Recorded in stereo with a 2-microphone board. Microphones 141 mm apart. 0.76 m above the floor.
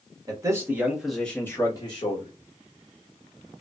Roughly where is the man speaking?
Right.